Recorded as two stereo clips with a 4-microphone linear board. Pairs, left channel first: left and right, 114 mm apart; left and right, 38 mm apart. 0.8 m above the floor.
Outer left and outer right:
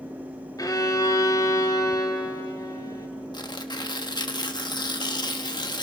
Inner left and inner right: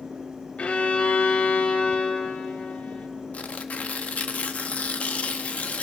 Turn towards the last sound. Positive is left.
turn(degrees=40)  # may be behind; listen again after turning